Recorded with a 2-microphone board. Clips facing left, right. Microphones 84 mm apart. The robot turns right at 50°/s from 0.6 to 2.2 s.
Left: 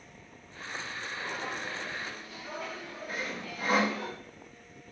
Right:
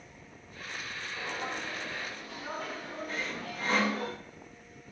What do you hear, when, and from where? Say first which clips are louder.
1.2 s footsteps: right 1 dB; 15° right (ahead or behind), 8.5 m; by 4.1 s 50° right (ahead or behind), 7.5 m
3.1 s sawing: left 2 dB; 10° left (ahead or behind), 2.5 m